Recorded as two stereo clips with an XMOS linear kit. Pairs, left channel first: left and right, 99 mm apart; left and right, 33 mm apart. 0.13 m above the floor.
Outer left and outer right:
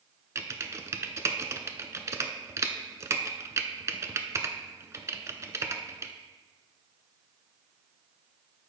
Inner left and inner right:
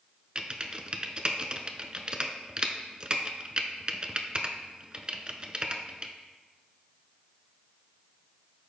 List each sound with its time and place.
0.3 s typing on a keyboard: 35° right (ahead or behind), 0.6 m